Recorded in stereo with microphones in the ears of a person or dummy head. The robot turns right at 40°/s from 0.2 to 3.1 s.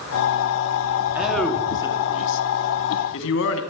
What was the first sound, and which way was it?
A man speaking, 5° right (ahead or behind).